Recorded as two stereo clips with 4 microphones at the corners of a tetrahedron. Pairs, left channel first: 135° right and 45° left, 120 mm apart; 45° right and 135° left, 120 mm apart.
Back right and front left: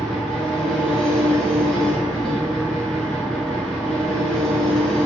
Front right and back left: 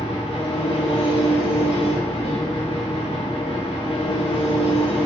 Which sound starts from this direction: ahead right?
An engine running, at 0.0 s.